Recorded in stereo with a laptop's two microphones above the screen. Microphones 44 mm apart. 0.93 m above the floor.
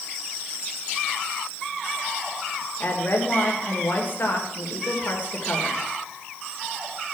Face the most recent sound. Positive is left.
turn(degrees=45)  # may be behind; listen again after turning